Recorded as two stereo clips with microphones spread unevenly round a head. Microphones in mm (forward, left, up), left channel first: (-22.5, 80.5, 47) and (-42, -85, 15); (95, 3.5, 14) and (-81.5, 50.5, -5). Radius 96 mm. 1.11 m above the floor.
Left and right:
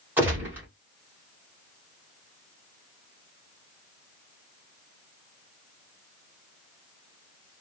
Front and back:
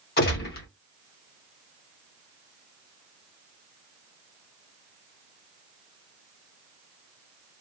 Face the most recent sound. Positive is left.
turn(degrees=-10)